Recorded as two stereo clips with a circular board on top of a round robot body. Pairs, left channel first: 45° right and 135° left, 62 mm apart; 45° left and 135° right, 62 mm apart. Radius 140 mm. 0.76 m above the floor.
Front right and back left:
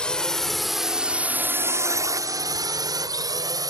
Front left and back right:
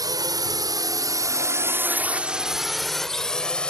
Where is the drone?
120° right; by 3.7 s 120° left.